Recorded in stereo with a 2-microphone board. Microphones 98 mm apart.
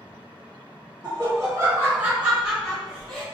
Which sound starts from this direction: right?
Laughter, at 1.0 s.